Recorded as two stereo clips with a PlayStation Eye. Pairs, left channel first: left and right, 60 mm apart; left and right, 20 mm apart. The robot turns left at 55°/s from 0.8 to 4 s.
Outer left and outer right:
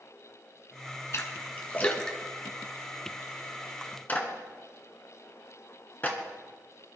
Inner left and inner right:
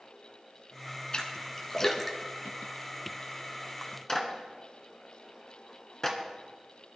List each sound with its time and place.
1.1 s a splash: 50° left (ahead or behind), 1.5 m; by 3.2 s 35° right (ahead or behind), 1.5 m
4.1 s a clap: 25° left (ahead or behind), 1.8 m